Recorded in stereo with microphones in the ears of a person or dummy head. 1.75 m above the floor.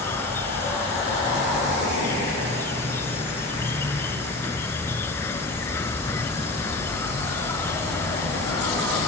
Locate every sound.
0.0 s an insect: 10° left (ahead or behind)